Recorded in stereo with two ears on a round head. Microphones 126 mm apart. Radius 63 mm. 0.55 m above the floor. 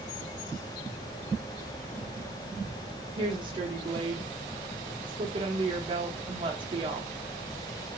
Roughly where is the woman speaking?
Right.